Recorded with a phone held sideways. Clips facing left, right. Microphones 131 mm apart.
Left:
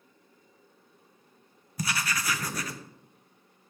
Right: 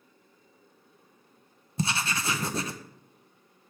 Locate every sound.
1.8 s writing: 30° right (ahead or behind), 0.6 m